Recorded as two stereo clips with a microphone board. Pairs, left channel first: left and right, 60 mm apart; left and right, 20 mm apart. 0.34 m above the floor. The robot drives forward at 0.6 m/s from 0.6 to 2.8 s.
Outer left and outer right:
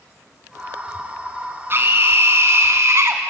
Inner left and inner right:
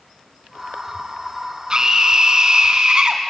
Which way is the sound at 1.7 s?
40° right (ahead or behind).